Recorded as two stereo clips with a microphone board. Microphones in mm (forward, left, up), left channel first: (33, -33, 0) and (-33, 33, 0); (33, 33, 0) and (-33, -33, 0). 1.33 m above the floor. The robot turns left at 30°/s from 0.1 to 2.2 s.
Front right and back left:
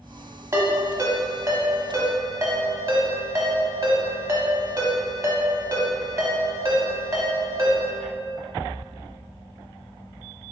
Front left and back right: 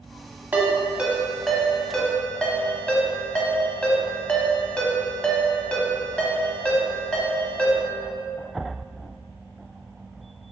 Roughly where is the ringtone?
Behind.